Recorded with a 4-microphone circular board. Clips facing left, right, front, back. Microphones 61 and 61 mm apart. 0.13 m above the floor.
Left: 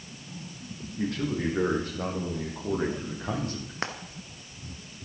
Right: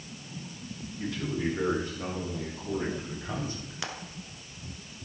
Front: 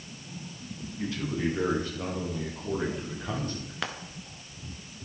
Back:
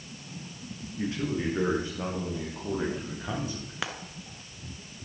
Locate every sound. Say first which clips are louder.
1.0 s a man speaking: left 3 dB, back 1 dB; 120° left, 5.5 m; by 3.7 s 95° left, 5.5 m
3.8 s frying: left 5 dB, even; 95° left, 1.3 m